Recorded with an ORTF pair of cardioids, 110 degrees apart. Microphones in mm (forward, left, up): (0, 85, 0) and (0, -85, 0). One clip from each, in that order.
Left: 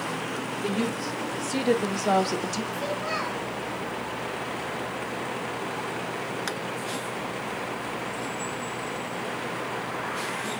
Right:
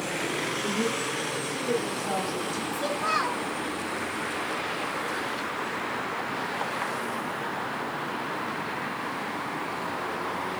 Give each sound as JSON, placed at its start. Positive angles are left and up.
{"t": 0.6, "sound": "a woman speaking", "azimuth_deg": 65, "distance_m": 3.5}
{"t": 2.7, "sound": "a child speaking", "azimuth_deg": -25, "distance_m": 4.5}